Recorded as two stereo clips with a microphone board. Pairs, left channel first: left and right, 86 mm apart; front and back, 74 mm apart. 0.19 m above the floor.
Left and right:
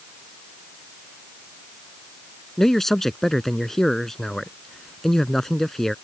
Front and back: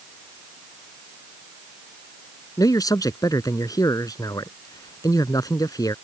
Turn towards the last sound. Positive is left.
turn(degrees=5)